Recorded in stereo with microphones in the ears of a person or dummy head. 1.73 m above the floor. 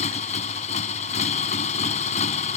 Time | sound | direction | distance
0.0 | a motorcycle | 35° left (ahead or behind) | ?